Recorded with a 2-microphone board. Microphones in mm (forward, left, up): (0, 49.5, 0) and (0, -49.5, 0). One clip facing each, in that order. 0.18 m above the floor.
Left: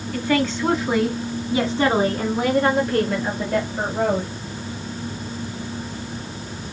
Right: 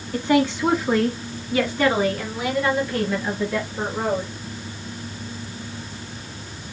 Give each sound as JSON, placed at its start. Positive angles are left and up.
{"t": 0.1, "sound": "a woman speaking", "side_deg": -25, "distance_m": 1.3}